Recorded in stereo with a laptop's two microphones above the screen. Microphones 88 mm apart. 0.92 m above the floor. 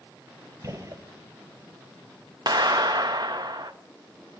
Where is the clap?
55° right (ahead or behind), 0.8 m.